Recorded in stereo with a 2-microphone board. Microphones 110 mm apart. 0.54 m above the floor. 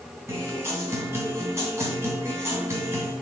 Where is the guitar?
25° right (ahead or behind), 2.5 m.